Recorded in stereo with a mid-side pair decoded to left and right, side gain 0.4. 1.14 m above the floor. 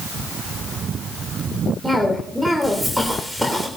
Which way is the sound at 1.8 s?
5° left.